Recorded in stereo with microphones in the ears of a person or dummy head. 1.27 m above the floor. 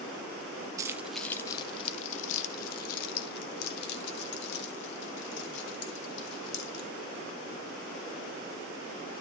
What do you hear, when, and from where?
0.8 s keys jangling: 15° right (ahead or behind), 0.5 m; by 6.9 s 75° left (ahead or behind), 3 m